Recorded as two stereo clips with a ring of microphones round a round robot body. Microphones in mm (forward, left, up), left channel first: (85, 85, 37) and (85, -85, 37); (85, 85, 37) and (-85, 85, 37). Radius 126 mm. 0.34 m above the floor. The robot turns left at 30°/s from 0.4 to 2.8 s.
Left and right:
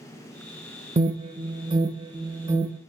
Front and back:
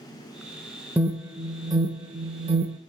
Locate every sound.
1.0 s an alarm: 105° right, 0.6 m; by 2.8 s 160° right, 0.6 m